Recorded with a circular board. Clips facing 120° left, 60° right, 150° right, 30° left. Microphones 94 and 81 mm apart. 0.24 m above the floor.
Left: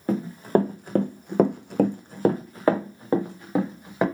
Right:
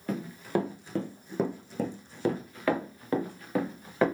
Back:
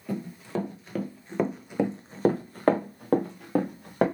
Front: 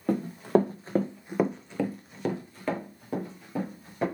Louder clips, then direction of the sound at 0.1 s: Left 8 dB, front 9 dB; 65° left.